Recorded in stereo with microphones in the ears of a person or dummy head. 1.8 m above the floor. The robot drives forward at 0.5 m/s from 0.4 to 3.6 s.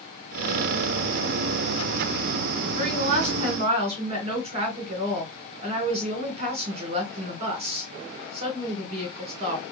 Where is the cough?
No cough in this recording.